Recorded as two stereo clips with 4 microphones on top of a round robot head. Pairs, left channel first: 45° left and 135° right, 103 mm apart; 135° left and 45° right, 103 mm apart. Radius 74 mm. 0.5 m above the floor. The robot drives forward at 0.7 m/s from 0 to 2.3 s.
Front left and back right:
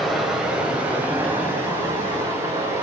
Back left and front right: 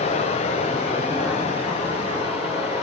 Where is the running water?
135° left, 1.6 m; by 2.8 s 160° left, 3 m.